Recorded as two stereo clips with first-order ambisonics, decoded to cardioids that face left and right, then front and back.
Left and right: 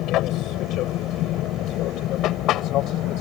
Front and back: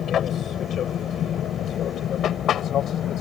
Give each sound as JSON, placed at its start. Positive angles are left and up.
{"t": 0.0, "sound": "an aircraft", "azimuth_deg": 55}